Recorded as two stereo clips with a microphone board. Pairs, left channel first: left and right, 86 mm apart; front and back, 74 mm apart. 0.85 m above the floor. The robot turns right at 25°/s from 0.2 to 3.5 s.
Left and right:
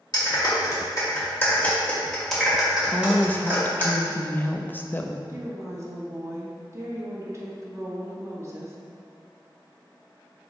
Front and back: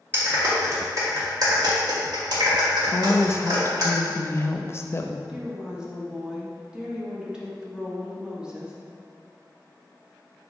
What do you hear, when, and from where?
0.1 s a clap: 125° left, 1.7 m; by 3.9 s 155° right, 1.7 m
2.9 s a woman speaking: 20° left, 0.5 m; by 5.2 s 35° left, 0.5 m
5.3 s a woman speaking: 105° right, 1.1 m